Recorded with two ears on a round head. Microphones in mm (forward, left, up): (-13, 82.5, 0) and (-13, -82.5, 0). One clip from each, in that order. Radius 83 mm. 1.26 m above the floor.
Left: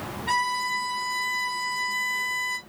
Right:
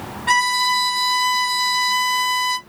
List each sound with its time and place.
0.3 s a violin: 45° right (ahead or behind), 0.8 m